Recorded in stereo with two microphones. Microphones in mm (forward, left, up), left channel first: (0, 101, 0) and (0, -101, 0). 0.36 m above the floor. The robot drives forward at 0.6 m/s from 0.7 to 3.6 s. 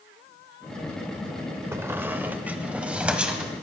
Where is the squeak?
10° right (ahead or behind), 0.5 m; by 3.5 s 5° right (ahead or behind), 1.4 m.